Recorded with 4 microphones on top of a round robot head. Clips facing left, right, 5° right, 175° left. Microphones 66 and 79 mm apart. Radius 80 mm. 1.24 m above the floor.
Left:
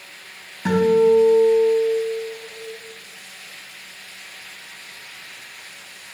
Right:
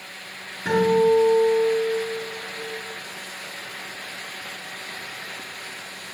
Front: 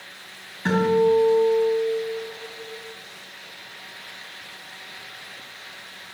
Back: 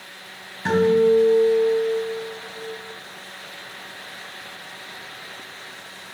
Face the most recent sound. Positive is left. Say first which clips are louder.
# left 3 dB, back 2 dB
turn(degrees=95)